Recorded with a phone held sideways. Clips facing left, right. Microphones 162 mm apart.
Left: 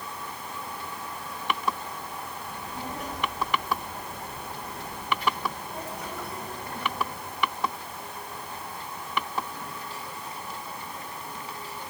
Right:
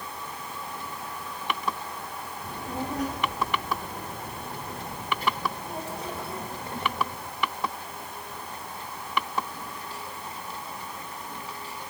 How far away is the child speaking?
About 1.7 m.